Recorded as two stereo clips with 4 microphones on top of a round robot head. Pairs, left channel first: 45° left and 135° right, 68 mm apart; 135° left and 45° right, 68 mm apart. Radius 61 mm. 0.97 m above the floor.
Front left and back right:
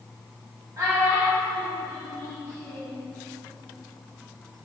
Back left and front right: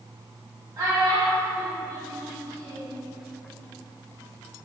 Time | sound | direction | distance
0.8 | a child speaking | 85° right | 1.4 m